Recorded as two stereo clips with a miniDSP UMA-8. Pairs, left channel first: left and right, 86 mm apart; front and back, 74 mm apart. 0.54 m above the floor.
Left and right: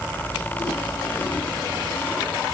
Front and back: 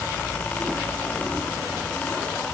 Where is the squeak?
No squeak in this recording.